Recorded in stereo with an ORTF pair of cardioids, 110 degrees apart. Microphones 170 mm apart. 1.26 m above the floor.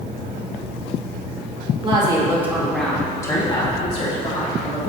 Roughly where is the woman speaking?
Ahead right.